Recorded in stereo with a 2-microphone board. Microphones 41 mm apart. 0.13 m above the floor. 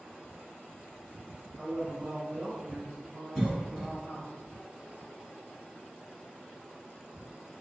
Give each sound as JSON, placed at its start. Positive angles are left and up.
{"t": 1.6, "sound": "a man speaking", "side_deg": -25, "distance_m": 1.6}
{"t": 3.4, "sound": "a cough", "side_deg": -10, "distance_m": 1.1}